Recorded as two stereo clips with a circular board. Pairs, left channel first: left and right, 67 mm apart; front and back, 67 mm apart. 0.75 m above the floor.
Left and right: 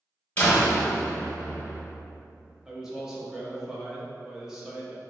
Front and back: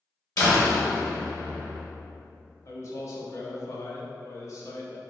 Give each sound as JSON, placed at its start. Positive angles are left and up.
{"t": 0.4, "sound": "a door slam", "azimuth_deg": 25, "distance_m": 1.8}
{"t": 2.6, "sound": "a man speaking", "azimuth_deg": -10, "distance_m": 0.7}